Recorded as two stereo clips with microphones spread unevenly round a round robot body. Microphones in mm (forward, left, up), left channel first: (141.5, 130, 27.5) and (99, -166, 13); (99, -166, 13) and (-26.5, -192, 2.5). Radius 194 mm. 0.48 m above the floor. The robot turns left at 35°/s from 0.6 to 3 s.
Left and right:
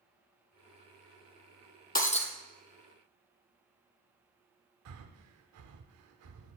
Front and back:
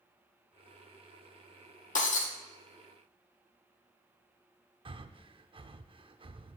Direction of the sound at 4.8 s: 130° right.